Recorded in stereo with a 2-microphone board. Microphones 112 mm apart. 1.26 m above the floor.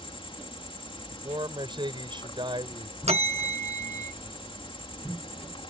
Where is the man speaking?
45° right (ahead or behind).